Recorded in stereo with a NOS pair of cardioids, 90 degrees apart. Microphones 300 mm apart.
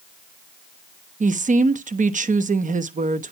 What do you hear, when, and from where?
1.2 s a woman speaking: 25° right, 1.0 m